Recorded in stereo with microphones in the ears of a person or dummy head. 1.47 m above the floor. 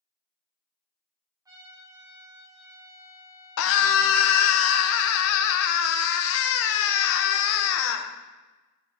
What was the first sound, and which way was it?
A trumpet, 20° right (ahead or behind).